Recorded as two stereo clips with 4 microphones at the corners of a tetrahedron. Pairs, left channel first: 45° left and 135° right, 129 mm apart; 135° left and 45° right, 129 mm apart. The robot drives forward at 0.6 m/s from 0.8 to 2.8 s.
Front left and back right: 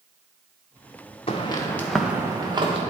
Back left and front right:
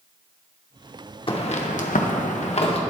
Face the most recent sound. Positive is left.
turn(degrees=180)